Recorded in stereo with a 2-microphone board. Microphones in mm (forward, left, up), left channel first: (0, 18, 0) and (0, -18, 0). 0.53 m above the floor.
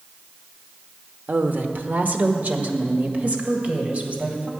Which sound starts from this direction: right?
A woman speaking, at 1.3 s.